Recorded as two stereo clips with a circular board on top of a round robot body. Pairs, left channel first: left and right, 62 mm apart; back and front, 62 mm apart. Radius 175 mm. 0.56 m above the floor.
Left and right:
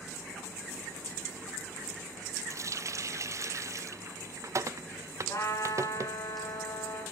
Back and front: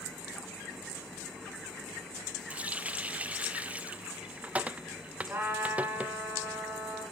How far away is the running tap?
About 0.6 m.